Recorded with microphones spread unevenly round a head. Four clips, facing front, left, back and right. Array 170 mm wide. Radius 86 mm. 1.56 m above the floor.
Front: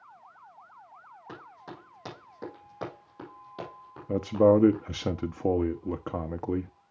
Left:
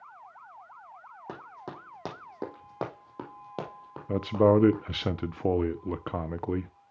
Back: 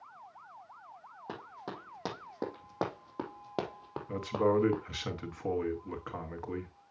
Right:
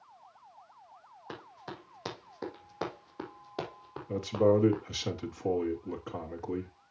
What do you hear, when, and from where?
1.3 s running footsteps: 115° left, 5 m; by 4.8 s 170° right, 3 m
4.1 s a man speaking: 35° left, 0.8 m